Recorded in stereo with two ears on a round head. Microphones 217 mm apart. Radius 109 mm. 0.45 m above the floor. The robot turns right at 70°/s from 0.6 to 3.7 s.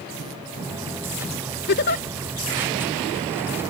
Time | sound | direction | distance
1.7 | a giggle | 45° left (ahead or behind) | ?